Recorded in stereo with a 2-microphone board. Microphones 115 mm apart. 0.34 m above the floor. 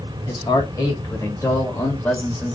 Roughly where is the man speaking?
Left.